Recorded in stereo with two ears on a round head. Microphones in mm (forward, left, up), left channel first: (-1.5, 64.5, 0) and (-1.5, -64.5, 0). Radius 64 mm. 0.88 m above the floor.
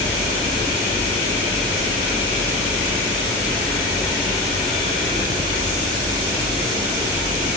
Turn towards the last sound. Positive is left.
No sound to turn to.